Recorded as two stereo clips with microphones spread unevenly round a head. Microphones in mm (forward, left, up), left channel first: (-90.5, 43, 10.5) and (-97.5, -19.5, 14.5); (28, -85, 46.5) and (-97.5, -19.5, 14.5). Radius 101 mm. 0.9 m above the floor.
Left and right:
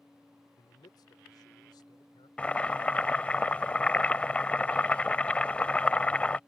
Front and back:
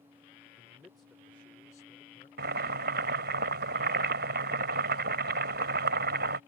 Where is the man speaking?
75° left; by 2.3 s 45° left.